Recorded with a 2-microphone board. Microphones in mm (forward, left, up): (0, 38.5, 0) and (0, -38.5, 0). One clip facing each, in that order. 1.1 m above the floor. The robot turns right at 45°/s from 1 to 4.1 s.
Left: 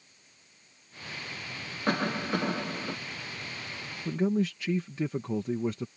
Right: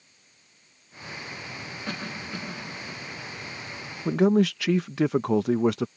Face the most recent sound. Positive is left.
turn(degrees=-80)